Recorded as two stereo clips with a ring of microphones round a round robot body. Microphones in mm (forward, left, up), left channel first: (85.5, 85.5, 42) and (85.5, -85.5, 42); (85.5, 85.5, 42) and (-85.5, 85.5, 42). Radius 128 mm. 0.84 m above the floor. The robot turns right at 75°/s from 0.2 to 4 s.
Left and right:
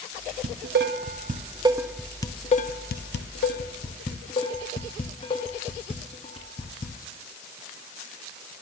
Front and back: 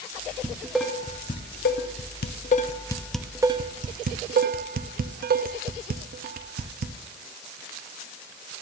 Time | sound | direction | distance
0.4 | dishes clattering | 115° right | 0.7 m